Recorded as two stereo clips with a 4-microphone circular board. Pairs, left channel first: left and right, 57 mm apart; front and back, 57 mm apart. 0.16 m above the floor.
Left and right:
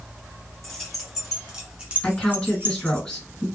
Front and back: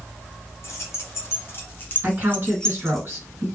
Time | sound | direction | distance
0.6 | keys jangling | 5° left | 1.6 m
2.0 | a woman speaking | 160° left | 2 m